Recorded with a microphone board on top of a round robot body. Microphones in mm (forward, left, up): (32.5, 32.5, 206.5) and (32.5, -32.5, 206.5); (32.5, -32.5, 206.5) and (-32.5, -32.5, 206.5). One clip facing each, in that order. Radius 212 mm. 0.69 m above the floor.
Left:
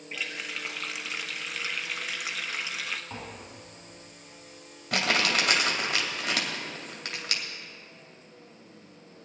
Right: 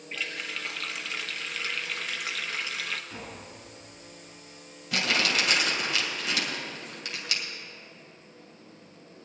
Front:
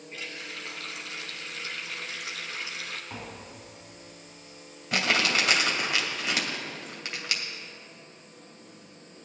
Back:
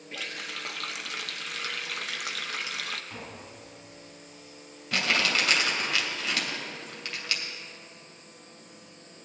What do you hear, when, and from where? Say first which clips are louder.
0.1 s a running tap: right 1 dB, back 2 dB; 170° left, 0.8 m
3.1 s tapping: left 1 dB, front 1 dB; 75° left, 4 m
4.9 s crumpling: left 1 dB, front 1 dB; 75° left, 2.5 m